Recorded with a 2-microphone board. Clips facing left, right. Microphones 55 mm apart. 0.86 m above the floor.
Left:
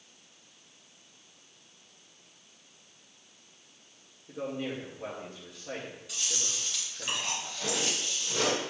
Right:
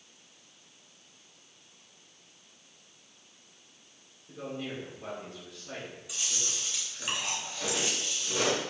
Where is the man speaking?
25° left (ahead or behind), 2.5 m.